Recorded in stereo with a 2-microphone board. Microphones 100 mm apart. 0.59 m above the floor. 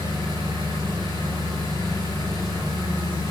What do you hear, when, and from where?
0.0 s an engine running: 45° right (ahead or behind), 2.5 m